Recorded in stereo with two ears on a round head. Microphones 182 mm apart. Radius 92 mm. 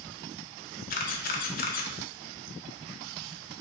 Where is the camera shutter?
40° left (ahead or behind), 0.5 m.